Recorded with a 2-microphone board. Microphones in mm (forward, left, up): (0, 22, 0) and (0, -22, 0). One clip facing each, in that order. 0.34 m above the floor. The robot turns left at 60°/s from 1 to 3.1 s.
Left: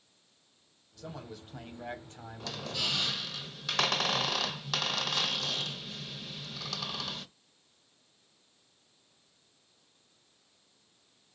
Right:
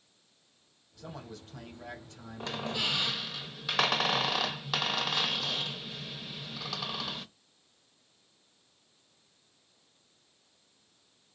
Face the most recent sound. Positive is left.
turn(degrees=-10)  # may be behind; listen again after turning